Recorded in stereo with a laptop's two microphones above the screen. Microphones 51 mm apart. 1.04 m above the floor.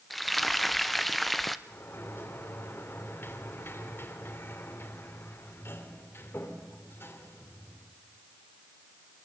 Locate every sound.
0.1 s frying: centre (ahead or behind), 0.6 m
1.7 s a sliding door: 45° left (ahead or behind), 3 m